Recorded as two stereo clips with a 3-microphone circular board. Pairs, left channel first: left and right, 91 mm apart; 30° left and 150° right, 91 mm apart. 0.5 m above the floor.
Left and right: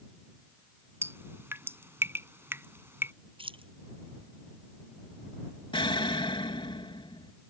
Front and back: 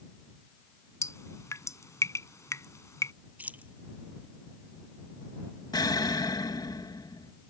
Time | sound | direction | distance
1.0 | dripping | 25° right | ?
3.4 | keys jangling | 80° right | ?
5.7 | an explosion | 70° left | ?